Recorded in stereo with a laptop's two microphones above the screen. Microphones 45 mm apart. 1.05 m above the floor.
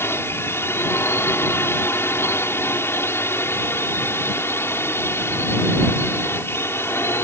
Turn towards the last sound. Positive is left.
turn(degrees=65)  # may be behind; listen again after turning